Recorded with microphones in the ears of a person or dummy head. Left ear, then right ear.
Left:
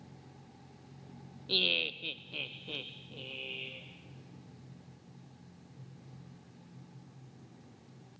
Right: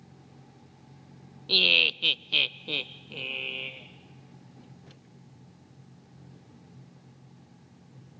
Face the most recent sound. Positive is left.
turn(degrees=-55)  # may be behind; listen again after turning